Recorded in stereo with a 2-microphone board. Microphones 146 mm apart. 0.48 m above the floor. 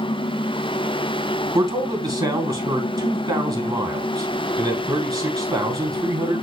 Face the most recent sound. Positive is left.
turn(degrees=-25)  # may be behind; listen again after turning